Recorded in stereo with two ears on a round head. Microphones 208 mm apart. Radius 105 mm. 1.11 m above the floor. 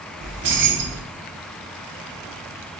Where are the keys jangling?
50° right (ahead or behind), 0.9 m.